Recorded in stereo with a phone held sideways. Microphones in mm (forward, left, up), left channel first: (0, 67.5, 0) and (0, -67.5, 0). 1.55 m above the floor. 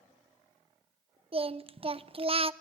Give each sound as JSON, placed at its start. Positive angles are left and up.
{"t": 1.3, "sound": "singing", "side_deg": -40, "distance_m": 0.5}